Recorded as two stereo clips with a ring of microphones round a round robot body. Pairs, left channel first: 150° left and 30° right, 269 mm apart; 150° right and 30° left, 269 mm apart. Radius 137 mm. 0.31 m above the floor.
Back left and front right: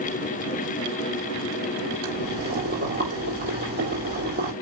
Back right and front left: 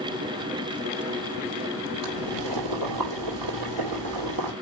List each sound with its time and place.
2.0 s boiling: 30° left, 3.5 m